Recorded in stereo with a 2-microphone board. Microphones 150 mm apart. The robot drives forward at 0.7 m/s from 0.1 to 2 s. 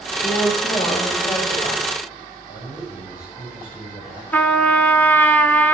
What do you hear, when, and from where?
0.2 s a woman speaking: 55° left (ahead or behind), 4.5 m; by 1.8 s 70° left (ahead or behind), 4 m
2.5 s a man speaking: 75° left (ahead or behind), 5.5 m
4.3 s a trumpet: 10° left (ahead or behind), 0.6 m